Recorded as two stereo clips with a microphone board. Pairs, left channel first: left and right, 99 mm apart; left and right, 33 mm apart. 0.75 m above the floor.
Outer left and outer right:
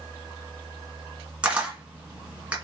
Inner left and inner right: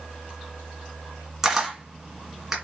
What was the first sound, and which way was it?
A camera shutter, 10° right (ahead or behind).